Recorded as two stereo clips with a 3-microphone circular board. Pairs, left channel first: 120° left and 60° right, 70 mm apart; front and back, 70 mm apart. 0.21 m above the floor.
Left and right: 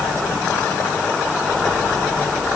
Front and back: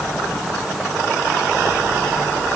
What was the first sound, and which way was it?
Only background noise.